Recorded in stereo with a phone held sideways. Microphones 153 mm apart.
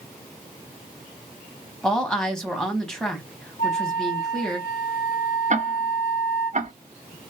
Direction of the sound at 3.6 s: 65° left (ahead or behind).